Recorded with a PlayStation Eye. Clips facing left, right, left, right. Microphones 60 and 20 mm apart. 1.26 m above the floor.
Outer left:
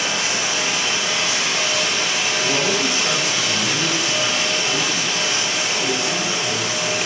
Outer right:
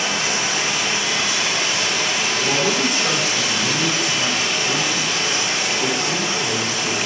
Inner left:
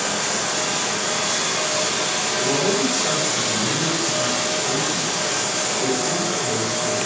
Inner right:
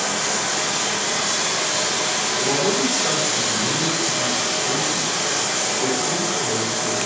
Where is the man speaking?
20° right (ahead or behind), 1.3 m.